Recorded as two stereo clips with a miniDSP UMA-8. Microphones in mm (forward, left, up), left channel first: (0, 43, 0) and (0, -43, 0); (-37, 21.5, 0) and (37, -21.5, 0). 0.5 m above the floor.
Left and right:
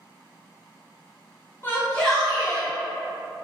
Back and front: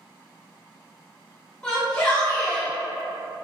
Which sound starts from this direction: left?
A shout, at 1.6 s.